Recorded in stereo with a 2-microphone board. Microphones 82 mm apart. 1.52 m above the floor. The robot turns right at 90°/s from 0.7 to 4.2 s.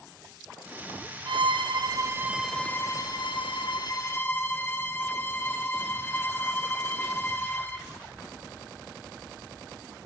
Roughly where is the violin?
Right.